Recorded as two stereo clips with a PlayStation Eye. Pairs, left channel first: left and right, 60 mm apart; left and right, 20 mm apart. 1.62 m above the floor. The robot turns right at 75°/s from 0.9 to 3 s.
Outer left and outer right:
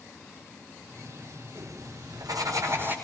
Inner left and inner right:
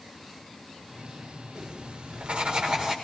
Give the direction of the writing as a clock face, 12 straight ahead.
5 o'clock.